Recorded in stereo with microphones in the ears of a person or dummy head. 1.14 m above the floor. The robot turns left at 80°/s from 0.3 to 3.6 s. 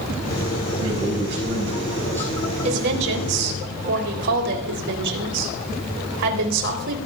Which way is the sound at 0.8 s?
80° right.